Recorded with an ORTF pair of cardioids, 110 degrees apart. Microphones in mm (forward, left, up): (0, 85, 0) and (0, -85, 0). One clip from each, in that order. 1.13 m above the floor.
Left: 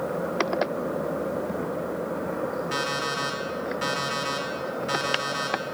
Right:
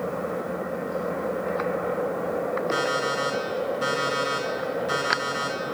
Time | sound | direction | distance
2.7 | an alarm clock | 25° left | 5 m